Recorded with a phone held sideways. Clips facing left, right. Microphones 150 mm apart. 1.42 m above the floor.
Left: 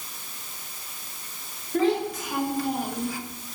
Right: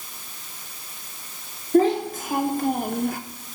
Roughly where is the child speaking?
Right.